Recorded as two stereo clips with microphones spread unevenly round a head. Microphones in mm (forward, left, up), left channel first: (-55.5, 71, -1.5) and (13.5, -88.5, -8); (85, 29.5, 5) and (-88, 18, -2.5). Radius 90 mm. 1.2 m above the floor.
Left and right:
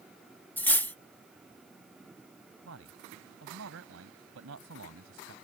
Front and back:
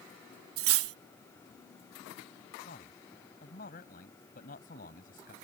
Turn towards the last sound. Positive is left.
turn(degrees=-45)